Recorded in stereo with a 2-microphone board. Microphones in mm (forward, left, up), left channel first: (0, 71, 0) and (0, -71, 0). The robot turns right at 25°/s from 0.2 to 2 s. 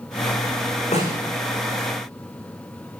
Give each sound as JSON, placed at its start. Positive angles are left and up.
{"t": 0.9, "sound": "a snare drum", "side_deg": 45, "distance_m": 10.0}